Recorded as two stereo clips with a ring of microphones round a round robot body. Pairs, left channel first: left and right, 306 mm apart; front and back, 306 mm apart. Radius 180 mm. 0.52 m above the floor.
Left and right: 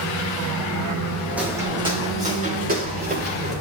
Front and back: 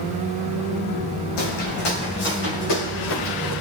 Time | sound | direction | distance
1.4 | footsteps | 5° right | 2 m